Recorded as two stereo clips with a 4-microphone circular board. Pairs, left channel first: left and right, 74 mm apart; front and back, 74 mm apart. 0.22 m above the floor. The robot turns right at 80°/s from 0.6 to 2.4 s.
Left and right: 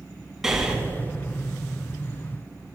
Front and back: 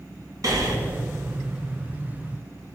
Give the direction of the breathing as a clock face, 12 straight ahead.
6 o'clock.